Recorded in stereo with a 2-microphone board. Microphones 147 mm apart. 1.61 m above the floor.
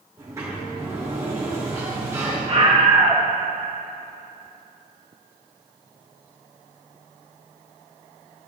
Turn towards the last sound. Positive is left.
turn(degrees=-45)  # may be behind; listen again after turning